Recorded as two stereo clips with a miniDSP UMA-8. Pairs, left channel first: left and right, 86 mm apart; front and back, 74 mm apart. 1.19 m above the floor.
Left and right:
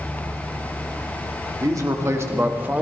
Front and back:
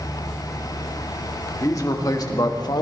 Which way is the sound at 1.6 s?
40° right.